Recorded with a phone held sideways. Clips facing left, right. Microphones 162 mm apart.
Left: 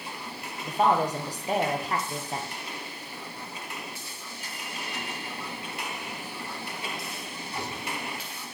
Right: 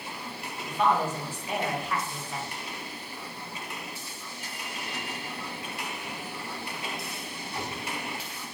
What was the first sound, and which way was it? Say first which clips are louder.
A woman speaking: left 2 dB; 40° left (ahead or behind).